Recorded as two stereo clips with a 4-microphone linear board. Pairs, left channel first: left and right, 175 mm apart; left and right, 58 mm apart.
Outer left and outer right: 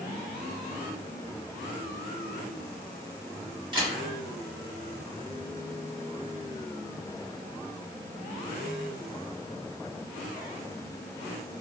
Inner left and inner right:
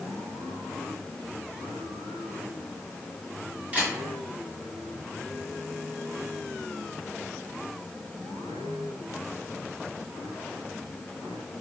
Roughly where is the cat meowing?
No cat meowing in this recording.